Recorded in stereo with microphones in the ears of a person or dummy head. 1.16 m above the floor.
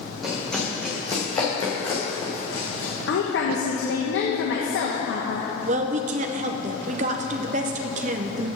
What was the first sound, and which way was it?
Running footsteps, centre (ahead or behind).